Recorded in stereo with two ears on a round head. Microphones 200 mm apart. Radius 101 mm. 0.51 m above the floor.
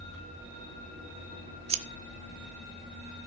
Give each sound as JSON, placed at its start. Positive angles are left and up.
{"t": 1.7, "sound": "scissors", "side_deg": -25, "distance_m": 0.8}